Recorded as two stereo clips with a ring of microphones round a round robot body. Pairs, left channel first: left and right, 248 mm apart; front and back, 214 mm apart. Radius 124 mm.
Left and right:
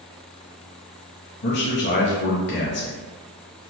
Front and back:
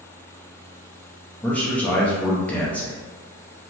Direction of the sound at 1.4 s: 80° left.